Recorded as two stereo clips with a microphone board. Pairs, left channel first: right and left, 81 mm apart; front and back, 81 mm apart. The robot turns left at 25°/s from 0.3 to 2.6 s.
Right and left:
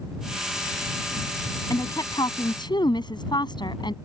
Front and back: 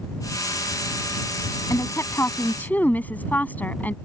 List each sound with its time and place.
1.7 s a woman speaking: 50° right; by 3.9 s 70° right